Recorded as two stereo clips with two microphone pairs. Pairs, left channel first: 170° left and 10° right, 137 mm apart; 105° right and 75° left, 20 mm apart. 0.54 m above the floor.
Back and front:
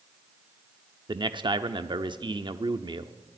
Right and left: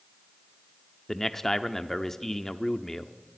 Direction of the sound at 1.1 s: 45° right.